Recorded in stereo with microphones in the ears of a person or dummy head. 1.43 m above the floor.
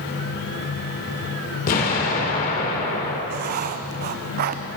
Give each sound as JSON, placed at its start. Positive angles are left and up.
{"t": 1.7, "sound": "an explosion", "side_deg": 45, "distance_m": 2.0}
{"t": 3.3, "sound": "writing", "side_deg": -45, "distance_m": 0.5}